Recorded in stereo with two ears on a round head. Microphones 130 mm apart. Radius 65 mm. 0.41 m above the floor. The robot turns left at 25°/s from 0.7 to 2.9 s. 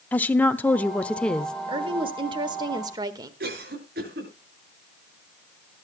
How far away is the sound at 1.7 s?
About 1.3 m.